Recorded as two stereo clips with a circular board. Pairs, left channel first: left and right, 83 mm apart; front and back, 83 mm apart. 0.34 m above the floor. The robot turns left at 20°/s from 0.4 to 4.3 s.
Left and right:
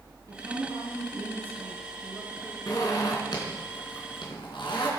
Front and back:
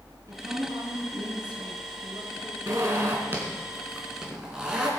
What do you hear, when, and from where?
0.3 s a woman speaking: 135° right, 3.5 m; by 2.6 s 175° right, 3.5 m
2.7 s a zipper: 130° left, 3.5 m; by 4.9 s 100° left, 3.5 m